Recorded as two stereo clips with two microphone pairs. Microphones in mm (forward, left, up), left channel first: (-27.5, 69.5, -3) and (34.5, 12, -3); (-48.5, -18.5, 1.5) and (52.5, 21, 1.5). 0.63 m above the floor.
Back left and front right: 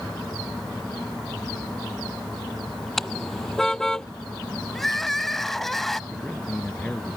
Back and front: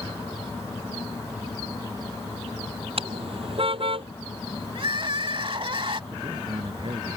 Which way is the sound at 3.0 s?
50° left.